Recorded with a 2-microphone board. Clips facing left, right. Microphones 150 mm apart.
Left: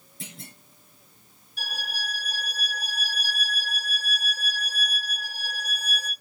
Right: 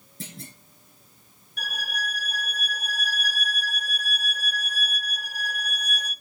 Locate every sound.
0.2 s a clunk: 45° right (ahead or behind), 4.5 m
1.6 s a violin: 60° right (ahead or behind), 1.4 m